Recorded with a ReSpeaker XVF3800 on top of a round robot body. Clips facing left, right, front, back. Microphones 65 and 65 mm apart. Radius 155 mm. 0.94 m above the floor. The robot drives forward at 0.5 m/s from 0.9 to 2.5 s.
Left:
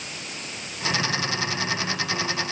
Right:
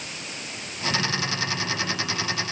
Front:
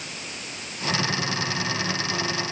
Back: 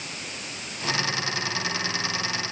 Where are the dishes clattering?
No dishes clattering in this recording.